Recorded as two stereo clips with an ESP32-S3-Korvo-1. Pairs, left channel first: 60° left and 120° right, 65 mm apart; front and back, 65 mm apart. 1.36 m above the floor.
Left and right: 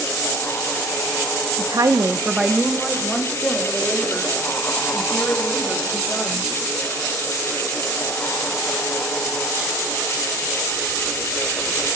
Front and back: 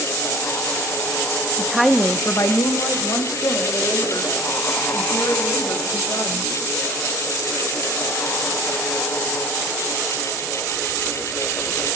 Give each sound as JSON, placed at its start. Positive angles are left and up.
{"t": 1.6, "sound": "a woman speaking", "azimuth_deg": -110, "distance_m": 0.8}